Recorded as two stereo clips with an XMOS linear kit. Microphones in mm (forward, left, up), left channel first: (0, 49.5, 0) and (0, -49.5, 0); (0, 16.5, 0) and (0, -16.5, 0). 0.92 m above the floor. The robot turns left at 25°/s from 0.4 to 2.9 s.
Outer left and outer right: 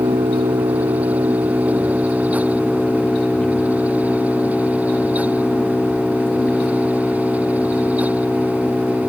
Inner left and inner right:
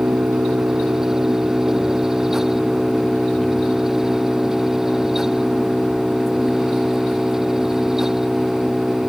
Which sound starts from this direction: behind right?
An engine running, at 0.0 s.